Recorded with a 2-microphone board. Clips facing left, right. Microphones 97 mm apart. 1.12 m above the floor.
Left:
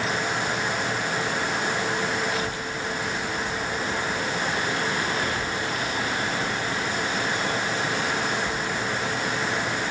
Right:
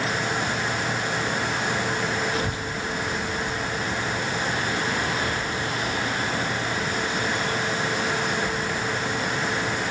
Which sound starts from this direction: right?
A child speaking, at 2.3 s.